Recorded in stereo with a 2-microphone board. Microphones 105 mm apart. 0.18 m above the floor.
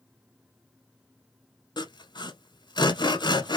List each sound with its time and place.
1.8 s sawing: 45° left (ahead or behind), 0.6 m